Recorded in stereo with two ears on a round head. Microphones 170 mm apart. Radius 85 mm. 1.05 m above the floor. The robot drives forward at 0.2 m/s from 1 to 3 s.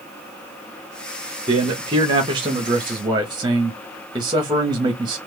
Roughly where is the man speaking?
Right.